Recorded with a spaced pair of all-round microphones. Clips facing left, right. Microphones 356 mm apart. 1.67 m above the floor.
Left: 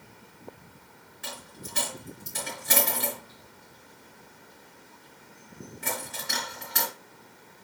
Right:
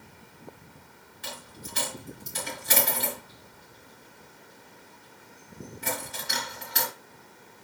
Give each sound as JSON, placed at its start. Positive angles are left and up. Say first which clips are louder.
{"t": 1.2, "sound": "a dropped coin", "louder": "even", "side_deg": 60, "distance_m": 4.0}